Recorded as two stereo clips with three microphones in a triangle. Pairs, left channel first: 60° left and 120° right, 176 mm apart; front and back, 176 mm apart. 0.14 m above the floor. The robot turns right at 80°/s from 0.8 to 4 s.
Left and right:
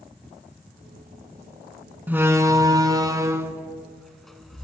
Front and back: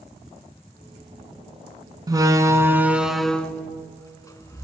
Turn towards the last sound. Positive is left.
turn(degrees=-25)